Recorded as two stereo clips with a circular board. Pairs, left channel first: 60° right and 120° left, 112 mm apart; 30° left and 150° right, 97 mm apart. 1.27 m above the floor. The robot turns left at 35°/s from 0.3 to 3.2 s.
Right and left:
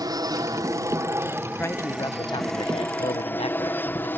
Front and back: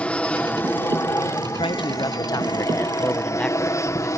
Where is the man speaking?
10° left; by 4.1 s 50° right.